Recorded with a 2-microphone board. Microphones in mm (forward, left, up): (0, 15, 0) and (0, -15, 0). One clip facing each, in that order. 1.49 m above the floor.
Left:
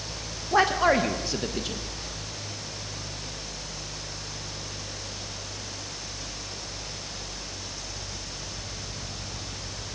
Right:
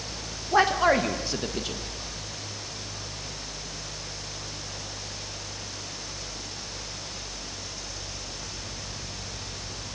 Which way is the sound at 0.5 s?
5° right (ahead or behind).